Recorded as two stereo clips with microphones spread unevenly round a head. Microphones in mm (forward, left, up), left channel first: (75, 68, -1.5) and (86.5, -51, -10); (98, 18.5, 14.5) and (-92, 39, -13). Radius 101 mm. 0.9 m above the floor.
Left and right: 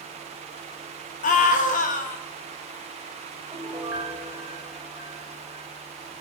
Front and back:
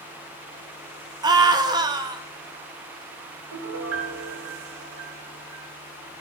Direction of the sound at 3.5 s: 175° right.